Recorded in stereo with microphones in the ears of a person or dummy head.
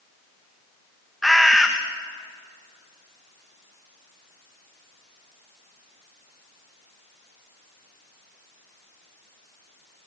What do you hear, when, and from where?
1.2 s a bird: 5° left (ahead or behind), 1.7 m